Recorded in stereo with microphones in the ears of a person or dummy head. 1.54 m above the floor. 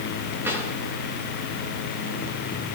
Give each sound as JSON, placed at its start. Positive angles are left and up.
{"t": 0.4, "sound": "a drawer", "side_deg": -15, "distance_m": 7.5}